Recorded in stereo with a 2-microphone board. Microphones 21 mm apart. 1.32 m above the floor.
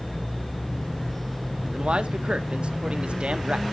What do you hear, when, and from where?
1.7 s a man speaking: 55° right (ahead or behind), 0.7 m